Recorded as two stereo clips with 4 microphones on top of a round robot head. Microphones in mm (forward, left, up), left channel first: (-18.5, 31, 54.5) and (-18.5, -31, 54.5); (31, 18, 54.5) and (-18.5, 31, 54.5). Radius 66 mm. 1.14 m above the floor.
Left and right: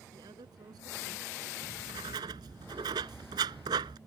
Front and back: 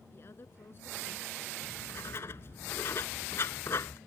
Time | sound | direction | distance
0.1 | a woman speaking | 65° right | ?
1.6 | writing | 70° right | ?